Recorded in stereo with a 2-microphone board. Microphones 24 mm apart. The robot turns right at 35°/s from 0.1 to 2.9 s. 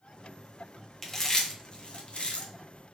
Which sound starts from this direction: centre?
Chewing, at 1.0 s.